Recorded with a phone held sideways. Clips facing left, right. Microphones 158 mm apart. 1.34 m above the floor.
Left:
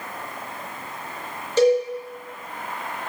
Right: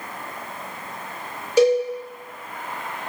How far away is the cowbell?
About 1.0 m.